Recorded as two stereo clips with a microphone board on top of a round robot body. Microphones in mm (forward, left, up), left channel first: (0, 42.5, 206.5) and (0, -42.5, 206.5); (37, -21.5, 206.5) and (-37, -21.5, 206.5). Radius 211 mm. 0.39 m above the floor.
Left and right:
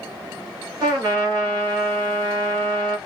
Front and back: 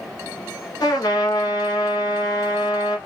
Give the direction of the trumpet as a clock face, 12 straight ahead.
1 o'clock.